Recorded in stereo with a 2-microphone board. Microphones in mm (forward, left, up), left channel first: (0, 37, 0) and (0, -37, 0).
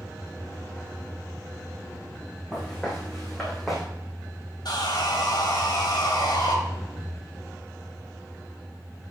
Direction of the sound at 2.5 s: 5° left (ahead or behind).